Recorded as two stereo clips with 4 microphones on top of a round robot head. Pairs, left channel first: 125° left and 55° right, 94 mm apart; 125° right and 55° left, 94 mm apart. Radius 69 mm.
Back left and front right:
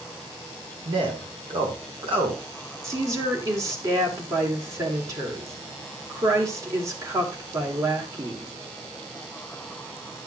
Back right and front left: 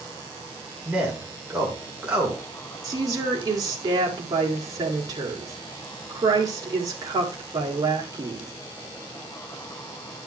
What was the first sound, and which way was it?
A man speaking, 25° right.